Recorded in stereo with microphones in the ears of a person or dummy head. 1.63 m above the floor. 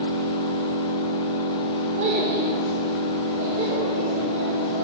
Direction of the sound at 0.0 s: 45° left (ahead or behind).